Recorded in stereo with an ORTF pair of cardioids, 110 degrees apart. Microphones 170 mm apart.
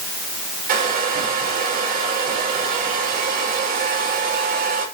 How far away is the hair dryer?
About 7 m.